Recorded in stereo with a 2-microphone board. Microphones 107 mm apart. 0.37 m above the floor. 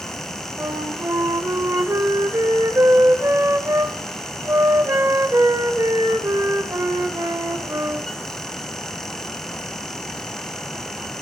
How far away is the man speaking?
I don't hear a man speaking.